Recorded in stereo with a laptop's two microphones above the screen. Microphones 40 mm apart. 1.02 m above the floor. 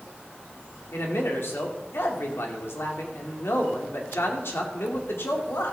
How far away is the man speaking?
About 2 m.